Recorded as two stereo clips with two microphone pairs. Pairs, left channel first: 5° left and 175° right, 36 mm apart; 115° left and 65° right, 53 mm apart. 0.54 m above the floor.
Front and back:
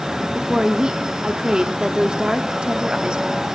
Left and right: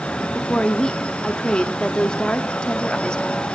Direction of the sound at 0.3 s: 165° left.